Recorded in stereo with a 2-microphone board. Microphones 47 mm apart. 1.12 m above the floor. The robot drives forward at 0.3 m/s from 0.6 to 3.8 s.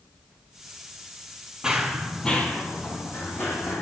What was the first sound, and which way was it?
Running footsteps, 15° right (ahead or behind).